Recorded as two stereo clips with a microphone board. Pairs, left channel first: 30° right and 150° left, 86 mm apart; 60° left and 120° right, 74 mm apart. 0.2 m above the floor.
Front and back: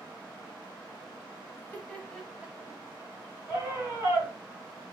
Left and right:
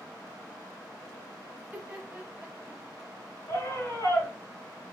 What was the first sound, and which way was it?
Laughter, 65° right.